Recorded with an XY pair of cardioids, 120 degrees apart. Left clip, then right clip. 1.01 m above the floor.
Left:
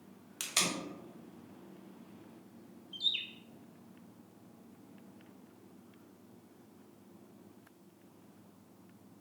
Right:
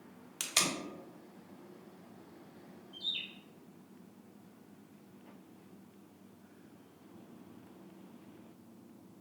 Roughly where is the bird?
Ahead left.